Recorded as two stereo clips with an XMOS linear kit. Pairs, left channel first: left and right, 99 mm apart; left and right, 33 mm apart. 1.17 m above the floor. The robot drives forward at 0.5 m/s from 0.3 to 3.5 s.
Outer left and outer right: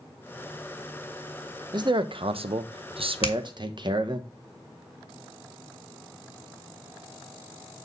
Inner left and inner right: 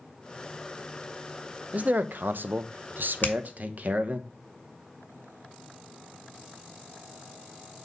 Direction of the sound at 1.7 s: 45° right (ahead or behind).